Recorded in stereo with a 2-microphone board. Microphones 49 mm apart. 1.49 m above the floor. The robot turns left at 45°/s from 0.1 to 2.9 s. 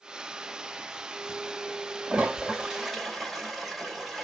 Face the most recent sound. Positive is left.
turn(degrees=-5)  # may be behind; listen again after turning